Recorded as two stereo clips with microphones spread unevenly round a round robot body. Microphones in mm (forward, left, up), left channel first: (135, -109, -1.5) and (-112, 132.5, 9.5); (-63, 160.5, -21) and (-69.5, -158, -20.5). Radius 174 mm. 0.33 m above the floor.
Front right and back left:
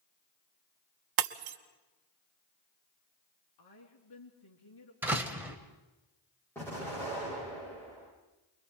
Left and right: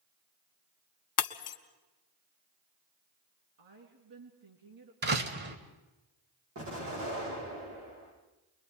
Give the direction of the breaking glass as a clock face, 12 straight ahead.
7 o'clock.